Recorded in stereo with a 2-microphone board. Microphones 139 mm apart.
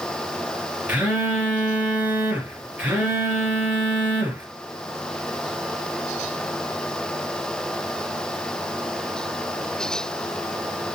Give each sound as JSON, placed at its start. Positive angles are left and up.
{"t": 0.9, "sound": "a phone buzzing", "side_deg": -10, "distance_m": 5.0}